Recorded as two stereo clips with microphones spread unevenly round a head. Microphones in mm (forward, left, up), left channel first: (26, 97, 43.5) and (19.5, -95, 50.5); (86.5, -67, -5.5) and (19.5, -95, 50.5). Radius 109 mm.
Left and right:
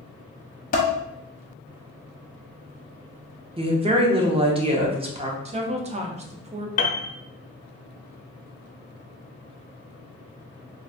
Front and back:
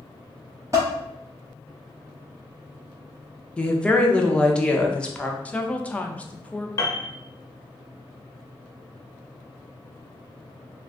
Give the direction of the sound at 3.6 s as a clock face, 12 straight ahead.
1 o'clock.